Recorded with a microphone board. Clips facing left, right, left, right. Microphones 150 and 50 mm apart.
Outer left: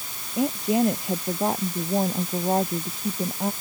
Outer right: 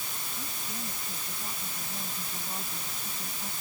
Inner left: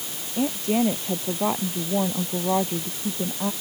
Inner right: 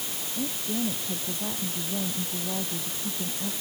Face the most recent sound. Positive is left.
turn(degrees=70)  # may be behind; listen again after turning